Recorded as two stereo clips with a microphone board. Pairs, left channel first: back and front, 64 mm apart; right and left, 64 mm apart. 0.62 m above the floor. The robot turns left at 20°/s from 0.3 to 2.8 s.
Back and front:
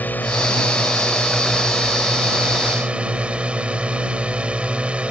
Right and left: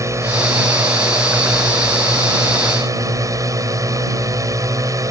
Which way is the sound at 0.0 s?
120° left.